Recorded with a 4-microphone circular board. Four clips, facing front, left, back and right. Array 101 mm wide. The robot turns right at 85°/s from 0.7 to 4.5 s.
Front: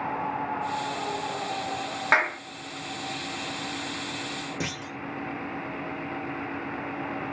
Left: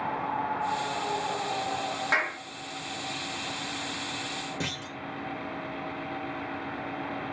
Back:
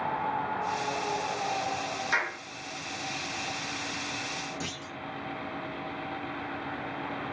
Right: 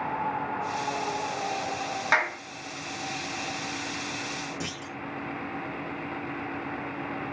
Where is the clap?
10° right, 1.0 m; by 2.4 s 10° left, 1.0 m.